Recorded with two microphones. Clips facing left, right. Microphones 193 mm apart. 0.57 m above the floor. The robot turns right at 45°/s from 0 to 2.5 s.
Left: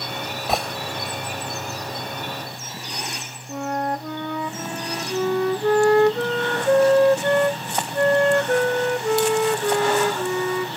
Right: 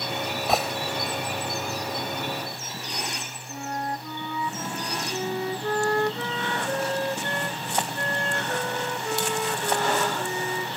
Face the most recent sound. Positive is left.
turn(degrees=70)  # may be behind; listen again after turning